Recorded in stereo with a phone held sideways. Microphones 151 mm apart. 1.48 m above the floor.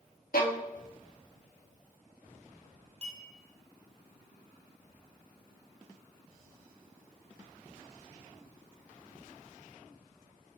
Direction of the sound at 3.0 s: 45° right (ahead or behind).